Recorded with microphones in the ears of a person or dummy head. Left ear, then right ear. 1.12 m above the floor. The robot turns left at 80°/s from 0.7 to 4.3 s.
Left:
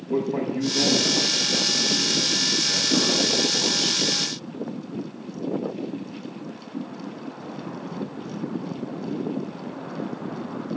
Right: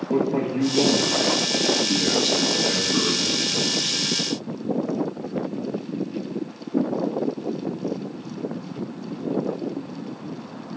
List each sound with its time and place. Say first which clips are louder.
0.1 s a man speaking: right 2 dB; 5° left, 1.2 m; by 4.0 s 105° left, 1.2 m